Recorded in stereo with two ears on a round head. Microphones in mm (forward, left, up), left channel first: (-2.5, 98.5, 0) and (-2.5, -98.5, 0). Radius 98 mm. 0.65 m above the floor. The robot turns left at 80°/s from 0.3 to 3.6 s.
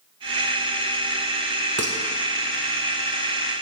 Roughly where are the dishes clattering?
Right.